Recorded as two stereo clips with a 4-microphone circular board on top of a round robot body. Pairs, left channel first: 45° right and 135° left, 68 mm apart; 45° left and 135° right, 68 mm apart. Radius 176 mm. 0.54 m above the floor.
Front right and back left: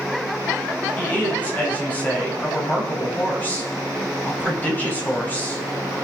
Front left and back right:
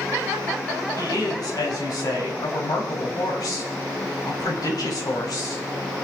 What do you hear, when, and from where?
1.0 s a woman speaking: 20° left, 5 m